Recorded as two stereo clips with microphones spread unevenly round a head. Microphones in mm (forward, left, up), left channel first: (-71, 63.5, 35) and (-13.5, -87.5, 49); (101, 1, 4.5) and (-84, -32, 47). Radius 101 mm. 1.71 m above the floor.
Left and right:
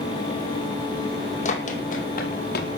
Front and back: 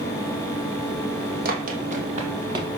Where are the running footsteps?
155° left, 4 m; by 2.7 s 130° left, 3.5 m.